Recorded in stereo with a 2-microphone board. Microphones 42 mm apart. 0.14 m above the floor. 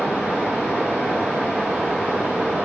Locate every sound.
0.0 s running water: 45° right (ahead or behind), 1.2 m